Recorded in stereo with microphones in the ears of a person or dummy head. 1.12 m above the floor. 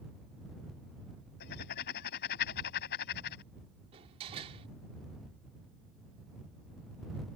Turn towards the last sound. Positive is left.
turn(degrees=-35)  # may be behind; listen again after turning